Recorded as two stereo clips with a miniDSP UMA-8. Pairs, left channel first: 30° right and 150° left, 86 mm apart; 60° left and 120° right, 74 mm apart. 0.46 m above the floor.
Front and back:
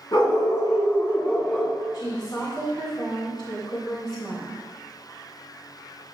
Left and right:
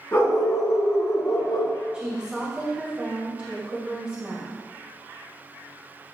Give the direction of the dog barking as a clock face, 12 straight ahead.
12 o'clock.